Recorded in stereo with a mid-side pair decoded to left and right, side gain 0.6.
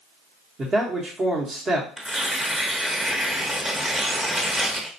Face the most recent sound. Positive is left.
turn(degrees=-15)